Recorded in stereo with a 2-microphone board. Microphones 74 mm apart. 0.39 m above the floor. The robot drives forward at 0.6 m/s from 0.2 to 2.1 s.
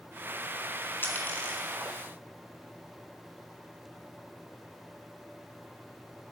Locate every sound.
1.0 s a dropped coin: 25° left (ahead or behind), 1.9 m; by 1.7 s 20° left (ahead or behind), 2.5 m